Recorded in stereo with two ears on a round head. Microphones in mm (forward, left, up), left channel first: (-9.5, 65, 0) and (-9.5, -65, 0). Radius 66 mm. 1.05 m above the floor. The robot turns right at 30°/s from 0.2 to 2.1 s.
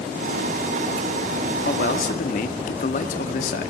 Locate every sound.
1.6 s a man speaking: 70° left (ahead or behind), 2 m; by 3.7 s 60° left (ahead or behind), 2 m